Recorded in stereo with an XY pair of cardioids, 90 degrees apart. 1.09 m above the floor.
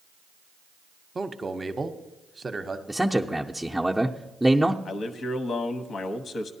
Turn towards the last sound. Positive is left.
turn(degrees=60)